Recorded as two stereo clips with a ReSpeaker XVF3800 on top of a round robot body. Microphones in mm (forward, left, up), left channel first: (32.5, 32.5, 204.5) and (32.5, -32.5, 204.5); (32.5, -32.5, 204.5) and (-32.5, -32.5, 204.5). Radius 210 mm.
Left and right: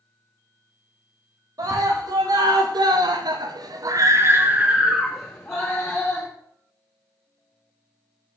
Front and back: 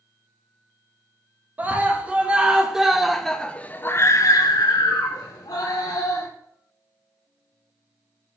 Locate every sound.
1.6 s a scream: 110° right, 1.6 m; by 6.3 s 20° left, 1.4 m